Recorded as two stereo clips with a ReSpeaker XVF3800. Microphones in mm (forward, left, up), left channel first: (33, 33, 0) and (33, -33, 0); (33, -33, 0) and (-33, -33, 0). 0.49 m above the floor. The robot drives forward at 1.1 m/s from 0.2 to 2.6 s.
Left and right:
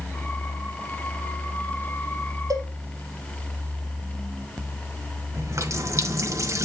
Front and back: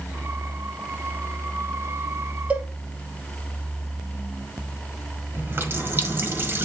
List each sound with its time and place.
2.5 s a cowbell: 110° right, 1.5 m; by 2.7 s 115° right, 1.6 m
5.3 s a running tap: 125° right, 1.5 m